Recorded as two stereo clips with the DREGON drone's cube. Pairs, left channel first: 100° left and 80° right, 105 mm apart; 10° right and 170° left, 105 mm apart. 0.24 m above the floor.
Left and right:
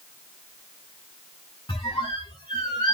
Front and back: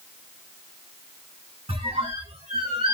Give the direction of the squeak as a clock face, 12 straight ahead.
7 o'clock.